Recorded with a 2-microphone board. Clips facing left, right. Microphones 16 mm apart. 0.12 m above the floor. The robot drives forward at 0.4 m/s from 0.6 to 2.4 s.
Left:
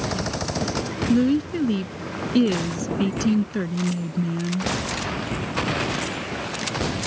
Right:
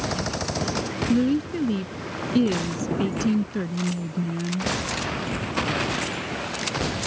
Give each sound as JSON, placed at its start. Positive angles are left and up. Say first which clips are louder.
{"t": 1.1, "sound": "a woman speaking", "louder": "left 2 dB", "side_deg": 20}